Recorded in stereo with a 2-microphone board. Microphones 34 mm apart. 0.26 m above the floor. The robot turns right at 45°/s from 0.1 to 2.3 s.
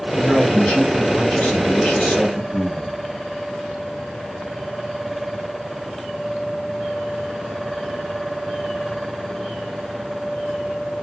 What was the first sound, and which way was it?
A man speaking, 25° left.